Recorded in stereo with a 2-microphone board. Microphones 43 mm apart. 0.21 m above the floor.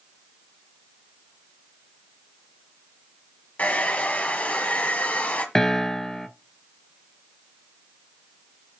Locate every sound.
3.6 s a hair dryer: 40° left (ahead or behind), 1.5 m
5.5 s a piano: 10° left (ahead or behind), 0.7 m